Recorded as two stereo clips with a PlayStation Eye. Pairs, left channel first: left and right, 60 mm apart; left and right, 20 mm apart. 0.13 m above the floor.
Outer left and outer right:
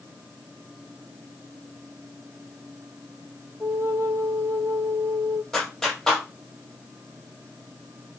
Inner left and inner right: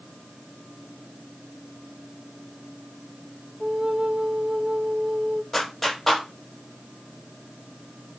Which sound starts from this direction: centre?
A clap, at 5.5 s.